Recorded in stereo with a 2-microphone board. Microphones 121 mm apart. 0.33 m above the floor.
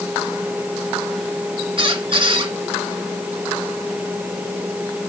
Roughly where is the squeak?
Right.